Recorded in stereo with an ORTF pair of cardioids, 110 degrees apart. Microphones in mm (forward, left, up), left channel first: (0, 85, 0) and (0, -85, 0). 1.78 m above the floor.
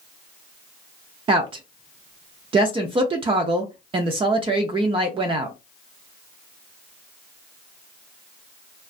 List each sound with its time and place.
1.3 s a woman speaking: 35° right, 0.5 m